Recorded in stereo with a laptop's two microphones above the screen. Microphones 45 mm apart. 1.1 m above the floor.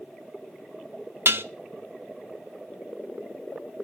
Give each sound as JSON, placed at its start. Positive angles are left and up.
{"t": 1.2, "sound": "dishes clattering", "side_deg": -60, "distance_m": 0.8}